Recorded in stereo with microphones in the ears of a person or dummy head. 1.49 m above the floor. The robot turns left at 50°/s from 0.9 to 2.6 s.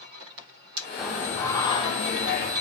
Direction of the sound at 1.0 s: 175° left.